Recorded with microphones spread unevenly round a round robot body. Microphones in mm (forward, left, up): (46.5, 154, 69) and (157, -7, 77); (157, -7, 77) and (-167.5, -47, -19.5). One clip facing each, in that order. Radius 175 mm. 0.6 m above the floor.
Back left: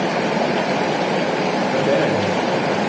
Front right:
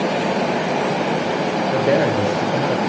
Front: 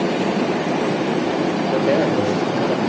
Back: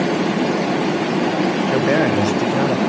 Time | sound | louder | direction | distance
1.7 | a man speaking | front right 2 dB, even | 135° right | 3 m